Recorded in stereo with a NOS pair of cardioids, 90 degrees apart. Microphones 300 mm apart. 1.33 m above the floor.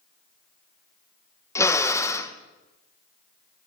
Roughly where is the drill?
Ahead.